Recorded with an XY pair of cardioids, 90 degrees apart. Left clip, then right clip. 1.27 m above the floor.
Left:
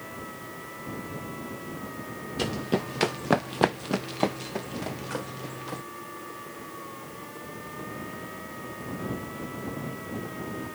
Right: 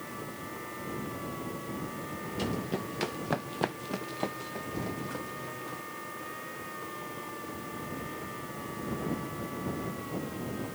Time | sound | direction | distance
2.4 | running footsteps | 55° left | ?